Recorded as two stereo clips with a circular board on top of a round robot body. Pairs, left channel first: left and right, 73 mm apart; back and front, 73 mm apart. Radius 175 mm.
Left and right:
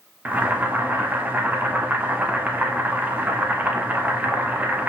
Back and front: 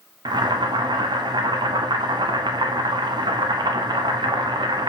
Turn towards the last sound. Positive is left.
turn(degrees=-20)